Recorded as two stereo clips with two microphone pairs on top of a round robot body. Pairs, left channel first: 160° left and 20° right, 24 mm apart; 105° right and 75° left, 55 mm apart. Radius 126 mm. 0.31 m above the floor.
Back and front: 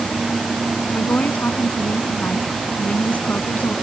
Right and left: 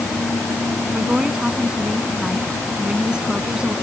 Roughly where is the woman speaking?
Behind left.